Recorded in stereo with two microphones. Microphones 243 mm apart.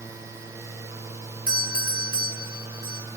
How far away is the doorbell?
About 3.5 m.